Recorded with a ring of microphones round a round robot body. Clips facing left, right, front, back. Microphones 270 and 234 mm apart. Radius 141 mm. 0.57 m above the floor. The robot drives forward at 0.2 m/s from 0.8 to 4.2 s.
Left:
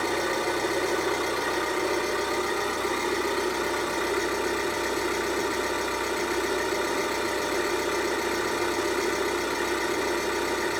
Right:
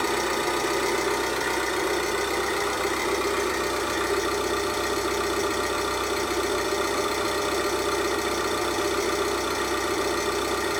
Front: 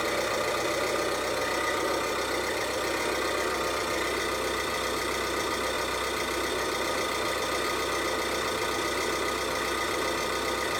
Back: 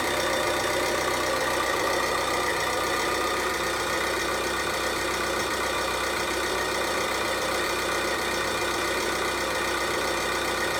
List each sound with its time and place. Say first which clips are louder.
0.0 s an engine running: right 1 dB, back 2 dB; 165° right, 1.7 m; by 10.8 s 170° right, 2.5 m